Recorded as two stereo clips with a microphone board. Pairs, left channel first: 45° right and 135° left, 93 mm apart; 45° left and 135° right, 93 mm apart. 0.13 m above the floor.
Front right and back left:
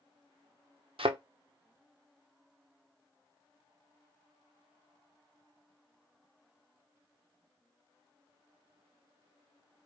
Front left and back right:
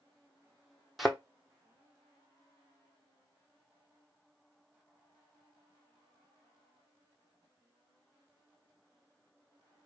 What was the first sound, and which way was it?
A thud, 135° left.